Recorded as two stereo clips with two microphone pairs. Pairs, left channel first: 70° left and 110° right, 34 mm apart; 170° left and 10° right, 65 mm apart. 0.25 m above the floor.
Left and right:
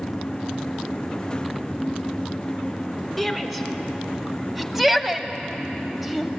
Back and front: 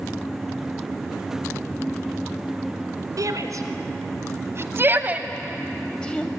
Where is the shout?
25° right, 2.5 m; by 6.3 s 175° left, 1.1 m.